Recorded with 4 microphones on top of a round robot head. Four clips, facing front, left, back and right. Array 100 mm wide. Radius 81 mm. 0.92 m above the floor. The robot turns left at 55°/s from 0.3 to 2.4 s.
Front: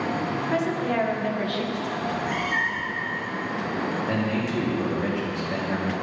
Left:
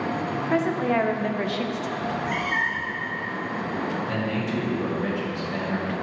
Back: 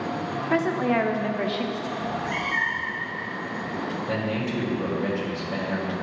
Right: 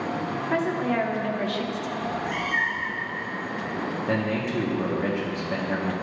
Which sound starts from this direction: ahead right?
A man speaking, at 4.1 s.